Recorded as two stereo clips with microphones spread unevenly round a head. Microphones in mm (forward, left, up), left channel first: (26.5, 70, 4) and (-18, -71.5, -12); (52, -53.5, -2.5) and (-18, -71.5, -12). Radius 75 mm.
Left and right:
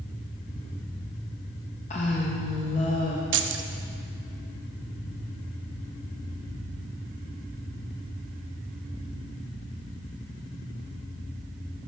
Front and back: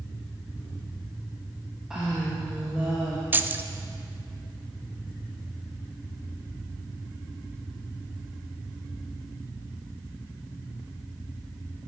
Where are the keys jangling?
100° right, 0.5 m.